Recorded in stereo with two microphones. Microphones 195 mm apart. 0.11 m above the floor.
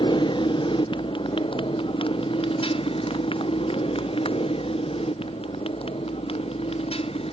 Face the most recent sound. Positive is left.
turn(degrees=30)  # may be behind; listen again after turning